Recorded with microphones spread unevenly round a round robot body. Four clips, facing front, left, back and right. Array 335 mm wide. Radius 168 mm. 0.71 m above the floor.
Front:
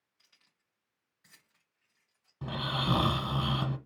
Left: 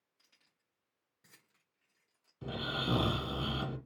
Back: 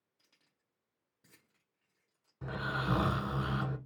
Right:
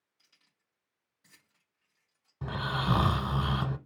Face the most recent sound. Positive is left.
turn(degrees=-60)